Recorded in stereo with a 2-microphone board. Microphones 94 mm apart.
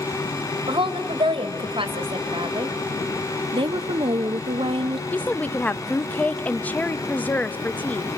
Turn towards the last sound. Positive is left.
turn(degrees=15)  # may be behind; listen again after turning